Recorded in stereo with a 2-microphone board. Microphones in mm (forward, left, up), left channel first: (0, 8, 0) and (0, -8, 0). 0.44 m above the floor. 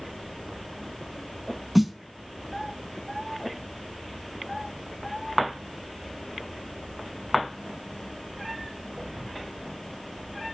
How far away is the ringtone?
I don't hear a ringtone.